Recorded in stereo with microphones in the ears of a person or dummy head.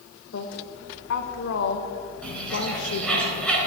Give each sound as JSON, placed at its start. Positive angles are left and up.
{"t": 0.3, "sound": "a woman speaking", "side_deg": 65, "distance_m": 1.5}
{"t": 2.2, "sound": "a bird", "side_deg": 10, "distance_m": 4.5}